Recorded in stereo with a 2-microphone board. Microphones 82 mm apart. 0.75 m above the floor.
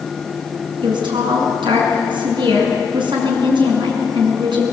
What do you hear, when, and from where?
0.8 s a woman speaking: 85° right, 7 m